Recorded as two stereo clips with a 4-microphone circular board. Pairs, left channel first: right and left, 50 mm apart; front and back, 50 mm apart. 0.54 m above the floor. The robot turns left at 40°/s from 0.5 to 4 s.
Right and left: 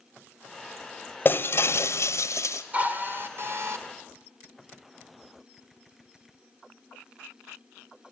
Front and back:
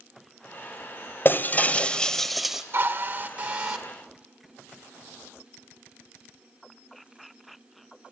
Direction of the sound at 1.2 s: 45° right.